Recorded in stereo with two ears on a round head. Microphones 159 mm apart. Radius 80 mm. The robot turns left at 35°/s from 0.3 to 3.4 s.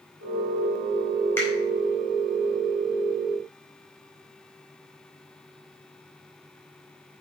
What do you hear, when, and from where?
1.4 s a finger snap: 15° left (ahead or behind), 5 m; by 1.5 s 10° left (ahead or behind), 5 m